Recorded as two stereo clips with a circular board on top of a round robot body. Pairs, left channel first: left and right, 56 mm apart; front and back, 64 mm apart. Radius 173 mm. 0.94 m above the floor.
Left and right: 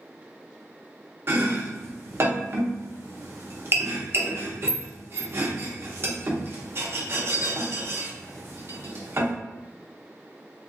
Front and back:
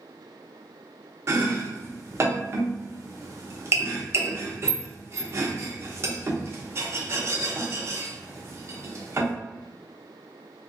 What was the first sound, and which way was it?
Chopping, 135° right.